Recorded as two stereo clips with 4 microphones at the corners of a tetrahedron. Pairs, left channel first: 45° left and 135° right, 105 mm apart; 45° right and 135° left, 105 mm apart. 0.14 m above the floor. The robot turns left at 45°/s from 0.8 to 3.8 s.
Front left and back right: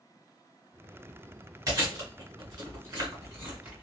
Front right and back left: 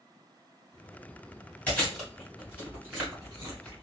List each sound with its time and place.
1.7 s chewing: 115° right, 1.8 m; by 3.8 s 150° left, 1.8 m